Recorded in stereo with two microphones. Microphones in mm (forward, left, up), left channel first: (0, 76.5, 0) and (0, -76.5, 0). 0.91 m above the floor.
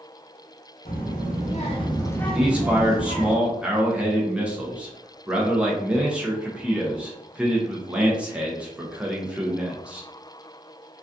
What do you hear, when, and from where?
0.8 s a child speaking: 65° left (ahead or behind), 1.0 m; by 3.3 s 40° right (ahead or behind), 0.8 m
2.3 s a man speaking: 5° right (ahead or behind), 0.5 m